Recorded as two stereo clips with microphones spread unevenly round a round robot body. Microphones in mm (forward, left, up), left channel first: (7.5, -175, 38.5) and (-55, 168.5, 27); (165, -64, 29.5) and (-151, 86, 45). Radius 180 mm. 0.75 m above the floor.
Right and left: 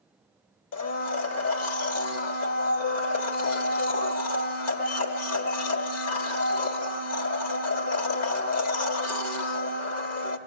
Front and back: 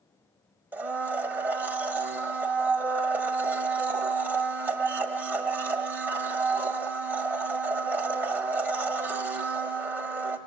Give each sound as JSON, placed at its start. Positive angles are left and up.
{"t": 0.7, "sound": "a blender", "azimuth_deg": -120, "distance_m": 0.8}